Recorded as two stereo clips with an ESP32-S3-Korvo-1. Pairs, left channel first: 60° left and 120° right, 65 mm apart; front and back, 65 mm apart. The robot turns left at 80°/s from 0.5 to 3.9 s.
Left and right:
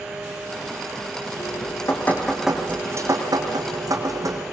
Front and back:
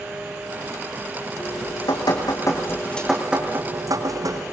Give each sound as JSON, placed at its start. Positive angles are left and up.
{"t": 1.4, "sound": "dripping", "azimuth_deg": 50, "distance_m": 7.0}